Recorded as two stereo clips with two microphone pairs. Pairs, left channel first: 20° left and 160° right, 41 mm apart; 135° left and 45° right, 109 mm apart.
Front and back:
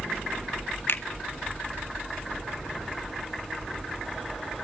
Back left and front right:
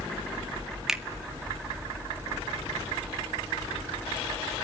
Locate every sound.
0.9 s a finger snap: 40° left, 1.3 m